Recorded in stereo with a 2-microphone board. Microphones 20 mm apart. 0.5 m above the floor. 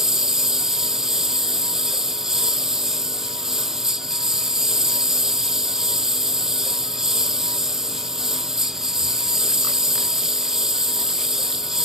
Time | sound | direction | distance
0.0 | a lawn mower | 20° right (ahead or behind) | ?